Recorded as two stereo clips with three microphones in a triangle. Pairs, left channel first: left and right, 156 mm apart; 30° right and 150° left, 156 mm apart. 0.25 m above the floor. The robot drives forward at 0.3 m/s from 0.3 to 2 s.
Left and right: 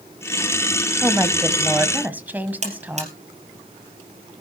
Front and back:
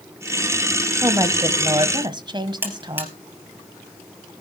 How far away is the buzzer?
About 2.5 m.